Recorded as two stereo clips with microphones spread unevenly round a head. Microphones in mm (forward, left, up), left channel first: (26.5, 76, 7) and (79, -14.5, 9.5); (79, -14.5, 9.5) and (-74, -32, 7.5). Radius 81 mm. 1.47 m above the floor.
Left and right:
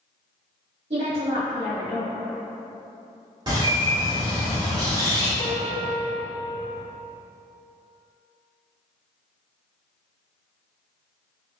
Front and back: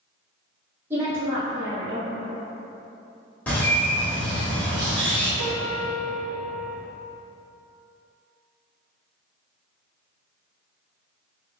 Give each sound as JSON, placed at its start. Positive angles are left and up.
{"t": 0.9, "sound": "a woman speaking", "azimuth_deg": -105, "distance_m": 2.0}
{"t": 3.5, "sound": "a bird", "azimuth_deg": -70, "distance_m": 1.4}
{"t": 5.4, "sound": "a piano", "azimuth_deg": 180, "distance_m": 0.5}